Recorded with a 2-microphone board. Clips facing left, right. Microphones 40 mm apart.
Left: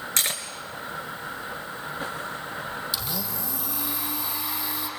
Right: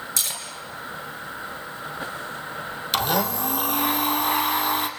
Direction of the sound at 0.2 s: 45° left (ahead or behind).